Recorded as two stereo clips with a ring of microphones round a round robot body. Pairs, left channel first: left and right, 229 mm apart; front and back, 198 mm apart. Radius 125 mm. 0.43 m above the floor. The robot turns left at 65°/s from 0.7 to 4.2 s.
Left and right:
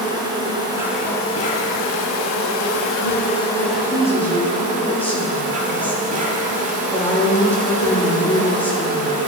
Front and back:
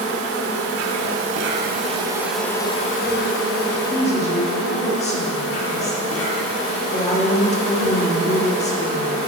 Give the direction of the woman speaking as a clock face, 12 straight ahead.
10 o'clock.